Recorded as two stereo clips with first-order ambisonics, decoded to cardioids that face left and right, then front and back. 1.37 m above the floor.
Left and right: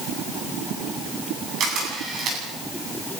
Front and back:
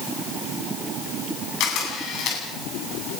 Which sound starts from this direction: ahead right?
A camera shutter, at 1.6 s.